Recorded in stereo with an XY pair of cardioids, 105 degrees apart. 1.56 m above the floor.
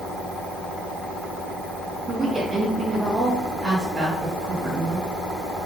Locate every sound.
2.1 s a woman speaking: 35° right, 2 m